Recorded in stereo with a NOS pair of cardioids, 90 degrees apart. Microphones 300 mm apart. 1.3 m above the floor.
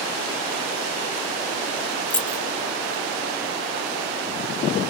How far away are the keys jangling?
About 0.5 m.